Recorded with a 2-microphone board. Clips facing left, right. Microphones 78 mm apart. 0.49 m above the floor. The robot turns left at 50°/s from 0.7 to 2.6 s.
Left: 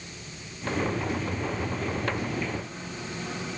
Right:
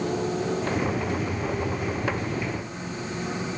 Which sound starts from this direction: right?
A motorcycle, at 0.0 s.